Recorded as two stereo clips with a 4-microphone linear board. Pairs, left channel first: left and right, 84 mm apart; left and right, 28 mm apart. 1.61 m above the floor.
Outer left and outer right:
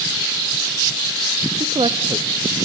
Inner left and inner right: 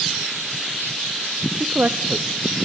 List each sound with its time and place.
1.6 s a man speaking: 80° right, 0.6 m